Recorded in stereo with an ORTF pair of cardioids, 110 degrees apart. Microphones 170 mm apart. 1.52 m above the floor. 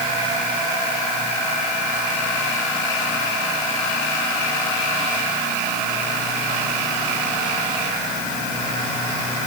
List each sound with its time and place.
Only background noise.